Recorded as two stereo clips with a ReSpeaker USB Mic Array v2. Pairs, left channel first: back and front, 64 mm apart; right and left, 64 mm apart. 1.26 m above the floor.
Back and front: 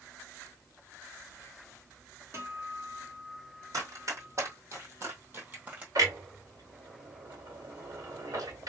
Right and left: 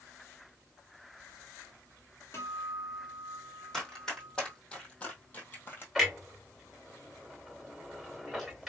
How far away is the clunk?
About 2 m.